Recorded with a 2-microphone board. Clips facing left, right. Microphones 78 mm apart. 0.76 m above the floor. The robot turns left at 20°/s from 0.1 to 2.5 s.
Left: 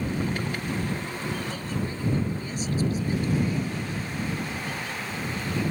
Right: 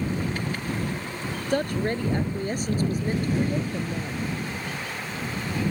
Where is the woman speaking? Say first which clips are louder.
Right 7 dB; 70° right (ahead or behind); by 4.3 s 50° right (ahead or behind).